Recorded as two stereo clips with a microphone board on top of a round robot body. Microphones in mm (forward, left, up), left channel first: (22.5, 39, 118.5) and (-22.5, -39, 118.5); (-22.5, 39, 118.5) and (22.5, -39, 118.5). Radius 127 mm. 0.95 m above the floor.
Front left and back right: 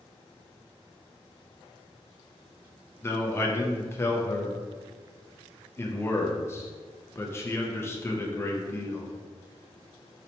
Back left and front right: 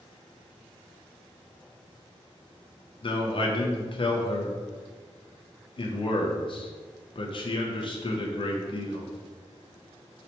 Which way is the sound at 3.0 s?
120° left.